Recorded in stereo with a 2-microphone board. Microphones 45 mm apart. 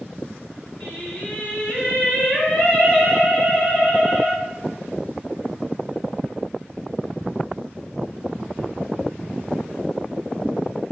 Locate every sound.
0.8 s singing: 40° left (ahead or behind), 2.0 m